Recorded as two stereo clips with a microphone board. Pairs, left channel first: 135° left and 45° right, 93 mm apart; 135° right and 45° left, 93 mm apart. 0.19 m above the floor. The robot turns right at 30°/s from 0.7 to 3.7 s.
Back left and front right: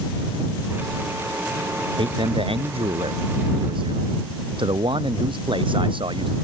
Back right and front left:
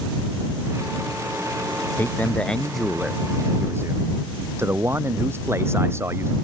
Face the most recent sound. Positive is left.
turn(degrees=-20)